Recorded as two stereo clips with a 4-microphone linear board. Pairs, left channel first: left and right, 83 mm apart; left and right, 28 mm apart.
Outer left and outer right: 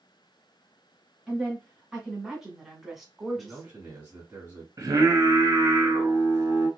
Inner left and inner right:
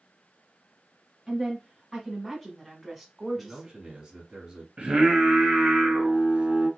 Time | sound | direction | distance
1.3 | a woman speaking | 10° right (ahead or behind) | 1.4 m
3.4 | a man speaking | 20° right (ahead or behind) | 1.4 m
4.8 | singing | 40° right (ahead or behind) | 1.5 m